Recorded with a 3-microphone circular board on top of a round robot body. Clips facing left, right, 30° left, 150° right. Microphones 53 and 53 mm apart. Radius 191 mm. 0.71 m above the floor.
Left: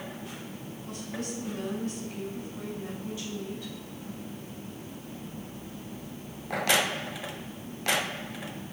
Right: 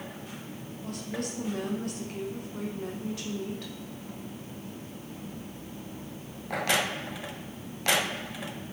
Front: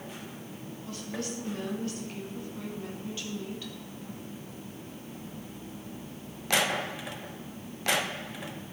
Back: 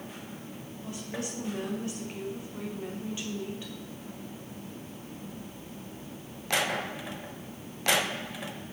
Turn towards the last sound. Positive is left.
turn(degrees=-80)